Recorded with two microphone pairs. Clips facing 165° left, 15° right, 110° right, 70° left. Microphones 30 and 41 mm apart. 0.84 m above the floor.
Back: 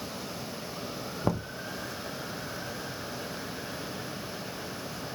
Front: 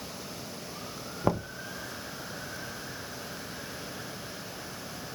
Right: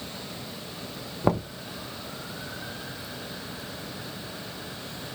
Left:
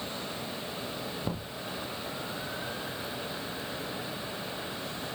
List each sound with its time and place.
1.2 s knocking: 85° right, 0.7 m